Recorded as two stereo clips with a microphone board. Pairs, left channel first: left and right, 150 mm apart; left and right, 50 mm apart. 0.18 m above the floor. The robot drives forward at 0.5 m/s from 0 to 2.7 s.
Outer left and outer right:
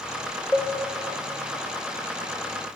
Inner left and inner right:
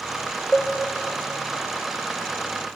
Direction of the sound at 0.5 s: 10° right (ahead or behind).